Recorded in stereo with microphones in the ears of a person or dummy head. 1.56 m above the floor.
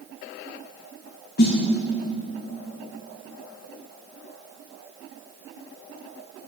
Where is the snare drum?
55° left (ahead or behind), 1.6 m.